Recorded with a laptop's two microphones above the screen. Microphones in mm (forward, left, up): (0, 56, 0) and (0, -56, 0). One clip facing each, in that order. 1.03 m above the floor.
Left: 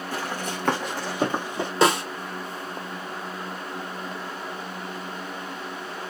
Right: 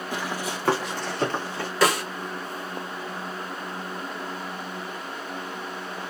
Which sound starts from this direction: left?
A snare drum, at 1.8 s.